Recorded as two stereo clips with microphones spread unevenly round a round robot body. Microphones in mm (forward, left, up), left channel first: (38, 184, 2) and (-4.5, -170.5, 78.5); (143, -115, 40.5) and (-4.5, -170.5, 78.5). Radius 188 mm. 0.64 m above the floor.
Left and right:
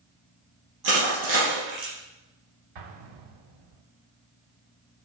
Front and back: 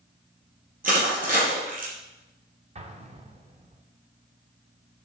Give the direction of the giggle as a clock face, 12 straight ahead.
No giggle in this recording.